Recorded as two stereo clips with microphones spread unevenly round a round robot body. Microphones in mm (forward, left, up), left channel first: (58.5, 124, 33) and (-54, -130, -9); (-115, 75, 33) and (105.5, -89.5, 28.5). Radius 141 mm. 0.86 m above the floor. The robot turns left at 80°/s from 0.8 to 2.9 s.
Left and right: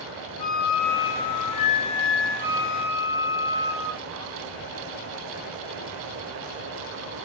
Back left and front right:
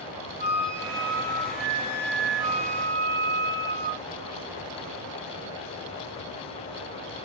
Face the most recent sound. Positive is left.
turn(degrees=-65)